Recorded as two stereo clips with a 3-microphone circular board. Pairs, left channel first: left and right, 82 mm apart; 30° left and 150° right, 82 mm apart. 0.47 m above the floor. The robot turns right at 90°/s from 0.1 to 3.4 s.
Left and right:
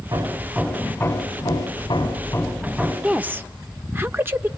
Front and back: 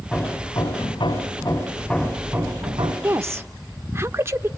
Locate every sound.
0.1 s hammering: 50° right, 3.5 m; by 2.9 s 155° right, 3.5 m
3.0 s a woman speaking: 160° right, 0.9 m; by 4.5 s 125° right, 0.9 m